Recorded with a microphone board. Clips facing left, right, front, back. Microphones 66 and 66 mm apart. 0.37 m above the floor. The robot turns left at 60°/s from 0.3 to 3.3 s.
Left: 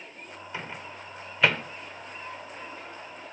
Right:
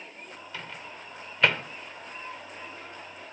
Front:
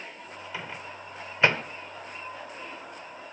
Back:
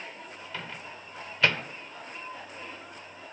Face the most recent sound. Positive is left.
turn(degrees=-110)